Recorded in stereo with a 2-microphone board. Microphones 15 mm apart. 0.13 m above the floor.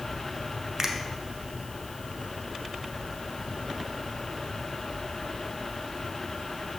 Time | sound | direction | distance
0.8 | a finger snap | 25° right (ahead or behind) | 0.9 m